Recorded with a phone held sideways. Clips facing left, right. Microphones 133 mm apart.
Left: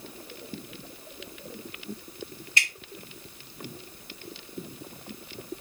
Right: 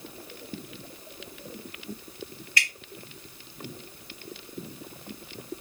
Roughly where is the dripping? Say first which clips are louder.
Even; left.